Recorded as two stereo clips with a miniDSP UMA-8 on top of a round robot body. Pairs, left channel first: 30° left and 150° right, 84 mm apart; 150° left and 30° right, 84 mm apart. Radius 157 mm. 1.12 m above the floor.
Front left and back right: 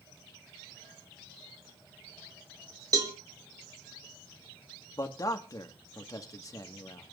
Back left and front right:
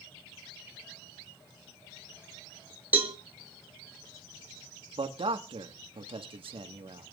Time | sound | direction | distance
2.9 | a cowbell | 100° right | 1.9 m
5.0 | a man speaking | 20° right | 1.7 m